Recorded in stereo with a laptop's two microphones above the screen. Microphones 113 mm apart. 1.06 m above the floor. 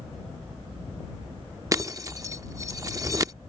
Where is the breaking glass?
30° right (ahead or behind).